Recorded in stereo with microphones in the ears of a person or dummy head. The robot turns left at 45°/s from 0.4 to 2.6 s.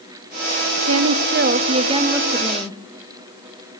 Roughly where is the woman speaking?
Right.